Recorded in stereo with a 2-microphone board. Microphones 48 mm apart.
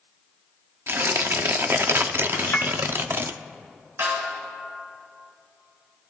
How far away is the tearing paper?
About 0.5 m.